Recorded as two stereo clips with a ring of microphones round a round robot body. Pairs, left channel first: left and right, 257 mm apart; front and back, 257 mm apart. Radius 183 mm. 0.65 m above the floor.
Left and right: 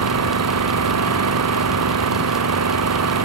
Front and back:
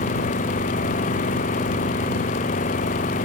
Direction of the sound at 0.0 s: 70° right.